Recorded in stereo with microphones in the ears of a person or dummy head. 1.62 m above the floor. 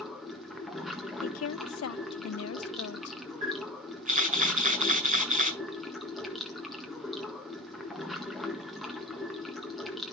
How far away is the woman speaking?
About 0.5 m.